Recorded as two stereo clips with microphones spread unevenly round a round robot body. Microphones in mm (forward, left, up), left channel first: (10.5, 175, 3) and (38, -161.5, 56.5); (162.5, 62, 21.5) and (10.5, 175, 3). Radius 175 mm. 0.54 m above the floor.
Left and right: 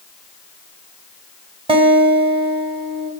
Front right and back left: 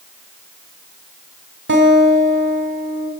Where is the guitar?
160° right, 1.5 m.